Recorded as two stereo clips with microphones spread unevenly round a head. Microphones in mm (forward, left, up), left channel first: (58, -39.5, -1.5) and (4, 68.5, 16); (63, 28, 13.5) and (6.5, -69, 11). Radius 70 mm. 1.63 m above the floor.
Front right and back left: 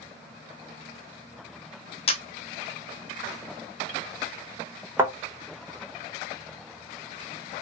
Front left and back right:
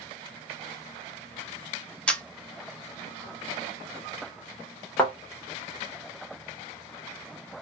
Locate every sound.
2.1 s a camera shutter: 20° right, 0.6 m
5.0 s a thud: 120° left, 0.9 m